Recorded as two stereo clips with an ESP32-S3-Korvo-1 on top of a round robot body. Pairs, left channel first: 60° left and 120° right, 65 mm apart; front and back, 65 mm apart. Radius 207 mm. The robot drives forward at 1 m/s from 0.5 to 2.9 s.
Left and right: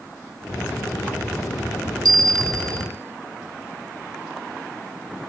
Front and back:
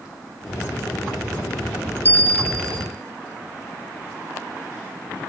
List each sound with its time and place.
2.0 s a bell: 120° right, 0.9 m; by 2.9 s 150° right, 1.5 m